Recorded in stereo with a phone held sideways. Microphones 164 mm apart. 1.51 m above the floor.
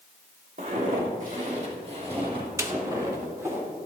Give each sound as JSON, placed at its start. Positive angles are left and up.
{"t": 0.6, "sound": "footsteps", "side_deg": -60, "distance_m": 3.0}
{"t": 2.6, "sound": "a snare drum", "side_deg": -15, "distance_m": 0.7}